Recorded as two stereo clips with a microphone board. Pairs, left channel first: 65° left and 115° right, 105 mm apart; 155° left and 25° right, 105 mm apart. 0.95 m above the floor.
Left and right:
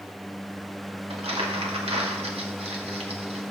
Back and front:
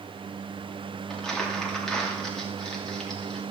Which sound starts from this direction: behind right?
Crumpling, at 1.1 s.